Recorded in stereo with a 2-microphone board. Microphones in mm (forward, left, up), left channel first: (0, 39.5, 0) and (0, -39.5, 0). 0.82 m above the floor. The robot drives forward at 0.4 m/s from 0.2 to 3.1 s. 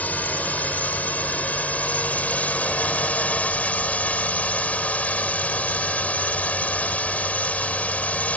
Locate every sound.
0.0 s a drone: 20° left (ahead or behind); by 8.4 s 15° left (ahead or behind)